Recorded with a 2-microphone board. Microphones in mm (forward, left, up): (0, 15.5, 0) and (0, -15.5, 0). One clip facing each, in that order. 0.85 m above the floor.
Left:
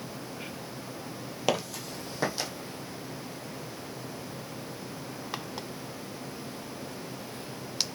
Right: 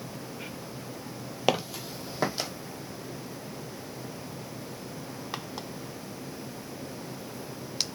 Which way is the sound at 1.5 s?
15° right (ahead or behind).